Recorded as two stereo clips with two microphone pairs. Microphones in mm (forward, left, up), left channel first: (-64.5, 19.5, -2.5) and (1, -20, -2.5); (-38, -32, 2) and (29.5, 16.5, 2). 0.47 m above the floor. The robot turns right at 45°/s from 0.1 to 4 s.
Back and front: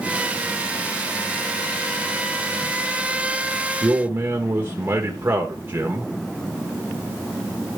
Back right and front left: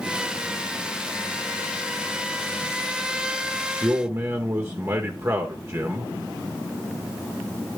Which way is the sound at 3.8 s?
Straight ahead.